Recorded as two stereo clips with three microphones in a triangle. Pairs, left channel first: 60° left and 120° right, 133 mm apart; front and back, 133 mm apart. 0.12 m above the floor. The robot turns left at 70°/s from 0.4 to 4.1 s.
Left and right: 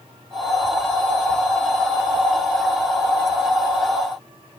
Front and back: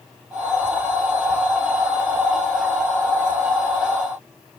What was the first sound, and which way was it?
Only background noise.